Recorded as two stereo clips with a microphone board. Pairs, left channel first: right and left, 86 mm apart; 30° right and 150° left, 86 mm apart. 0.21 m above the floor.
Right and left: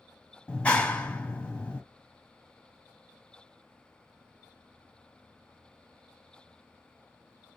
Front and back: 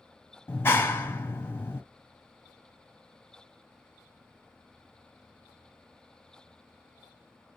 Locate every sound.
0.5 s a clap: 35° right, 1.0 m